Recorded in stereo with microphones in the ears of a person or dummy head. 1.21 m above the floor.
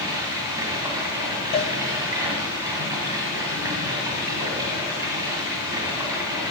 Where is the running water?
20° right (ahead or behind), 2.5 m.